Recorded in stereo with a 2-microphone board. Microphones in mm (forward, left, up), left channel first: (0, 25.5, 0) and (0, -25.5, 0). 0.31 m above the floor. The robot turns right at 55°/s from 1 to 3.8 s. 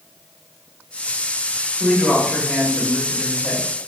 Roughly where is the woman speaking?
Centre.